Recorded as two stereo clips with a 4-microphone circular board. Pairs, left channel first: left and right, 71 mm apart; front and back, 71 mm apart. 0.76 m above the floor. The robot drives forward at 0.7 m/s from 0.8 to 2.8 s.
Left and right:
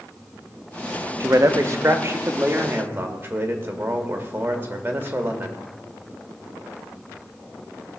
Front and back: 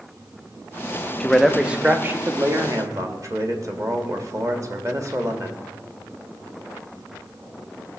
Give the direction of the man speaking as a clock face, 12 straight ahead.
3 o'clock.